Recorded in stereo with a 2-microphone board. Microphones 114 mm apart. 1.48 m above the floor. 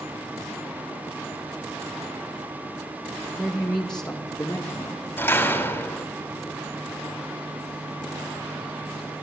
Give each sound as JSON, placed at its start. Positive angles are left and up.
{"t": 3.4, "sound": "a man speaking", "side_deg": 0, "distance_m": 1.8}
{"t": 5.2, "sound": "a door slam", "side_deg": 15, "distance_m": 3.5}